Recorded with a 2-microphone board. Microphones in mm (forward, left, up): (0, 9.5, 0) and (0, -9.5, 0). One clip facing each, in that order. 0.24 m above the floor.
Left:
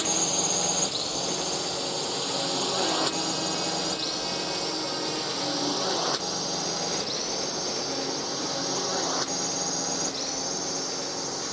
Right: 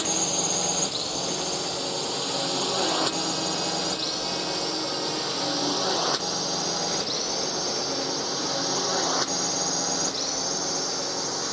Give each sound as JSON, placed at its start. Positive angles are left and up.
{"t": 0.0, "sound": "a drone", "side_deg": 5}